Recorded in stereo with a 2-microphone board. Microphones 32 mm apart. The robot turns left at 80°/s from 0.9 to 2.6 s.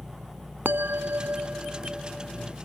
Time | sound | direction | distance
0.7 | a bell | 90° right | ?